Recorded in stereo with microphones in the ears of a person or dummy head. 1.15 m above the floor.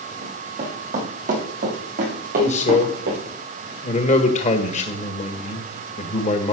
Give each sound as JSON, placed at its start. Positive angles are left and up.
{"t": 0.2, "sound": "running footsteps", "side_deg": -40, "distance_m": 6.5}
{"t": 2.4, "sound": "a man speaking", "side_deg": 35, "distance_m": 1.7}